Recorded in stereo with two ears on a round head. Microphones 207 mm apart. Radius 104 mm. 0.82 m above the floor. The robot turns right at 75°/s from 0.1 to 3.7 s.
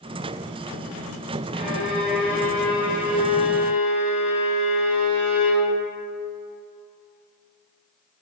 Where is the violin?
60° right, 1.8 m; by 5.7 s 100° left, 1.8 m.